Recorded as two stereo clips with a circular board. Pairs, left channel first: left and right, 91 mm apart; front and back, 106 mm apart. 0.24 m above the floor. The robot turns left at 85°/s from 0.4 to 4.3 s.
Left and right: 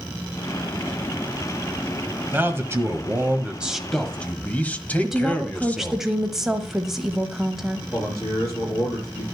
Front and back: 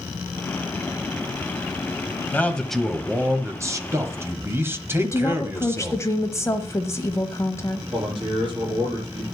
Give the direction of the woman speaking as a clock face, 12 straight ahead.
12 o'clock.